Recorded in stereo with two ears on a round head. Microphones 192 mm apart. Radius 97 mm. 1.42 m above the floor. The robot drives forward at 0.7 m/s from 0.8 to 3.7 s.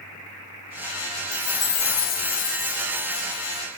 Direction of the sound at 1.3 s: 60° left (ahead or behind).